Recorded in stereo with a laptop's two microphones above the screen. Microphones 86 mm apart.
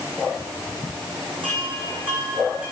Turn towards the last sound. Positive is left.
turn(degrees=-85)